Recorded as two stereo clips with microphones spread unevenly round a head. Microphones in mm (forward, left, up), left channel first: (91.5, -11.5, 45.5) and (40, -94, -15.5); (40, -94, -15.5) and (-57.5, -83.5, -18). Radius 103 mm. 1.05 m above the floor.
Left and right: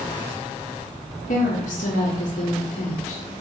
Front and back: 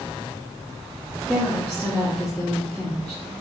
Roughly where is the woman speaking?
Left.